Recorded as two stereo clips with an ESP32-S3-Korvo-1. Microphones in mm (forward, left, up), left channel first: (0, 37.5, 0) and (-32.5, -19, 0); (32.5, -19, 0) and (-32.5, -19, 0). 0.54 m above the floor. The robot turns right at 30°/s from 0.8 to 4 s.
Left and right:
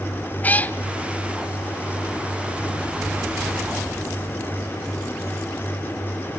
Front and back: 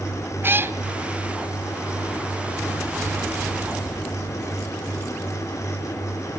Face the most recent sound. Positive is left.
turn(degrees=-135)